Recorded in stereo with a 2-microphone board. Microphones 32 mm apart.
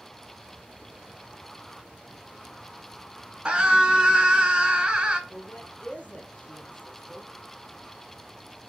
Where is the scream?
30° right (ahead or behind), 2 m.